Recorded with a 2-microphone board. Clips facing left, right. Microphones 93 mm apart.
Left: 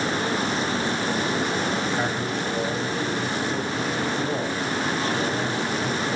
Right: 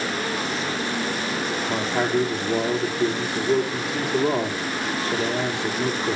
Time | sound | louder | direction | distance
1.7 | a man speaking | right 2 dB | 70° right (ahead or behind) | 4.5 m